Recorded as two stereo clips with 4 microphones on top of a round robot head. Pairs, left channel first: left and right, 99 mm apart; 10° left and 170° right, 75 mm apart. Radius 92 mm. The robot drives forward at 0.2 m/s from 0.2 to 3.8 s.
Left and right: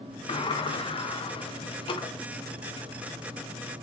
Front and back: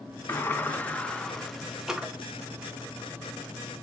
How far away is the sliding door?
About 0.6 m.